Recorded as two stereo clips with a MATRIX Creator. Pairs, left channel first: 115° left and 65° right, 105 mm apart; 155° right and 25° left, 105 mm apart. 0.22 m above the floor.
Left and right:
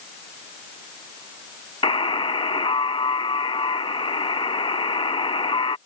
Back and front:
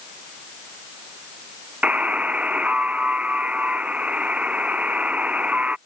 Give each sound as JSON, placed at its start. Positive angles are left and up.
{"t": 1.8, "sound": "a buzzer", "azimuth_deg": 100}